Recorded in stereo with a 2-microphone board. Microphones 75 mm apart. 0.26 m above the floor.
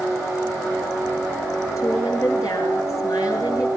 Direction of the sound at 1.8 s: 55° left (ahead or behind).